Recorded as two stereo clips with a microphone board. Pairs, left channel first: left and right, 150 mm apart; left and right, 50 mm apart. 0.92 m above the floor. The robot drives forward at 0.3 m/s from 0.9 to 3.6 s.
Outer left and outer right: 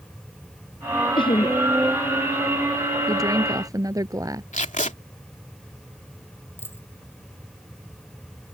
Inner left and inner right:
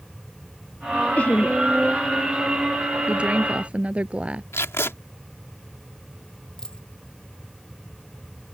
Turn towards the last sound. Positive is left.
turn(degrees=15)  # may be behind; listen again after turning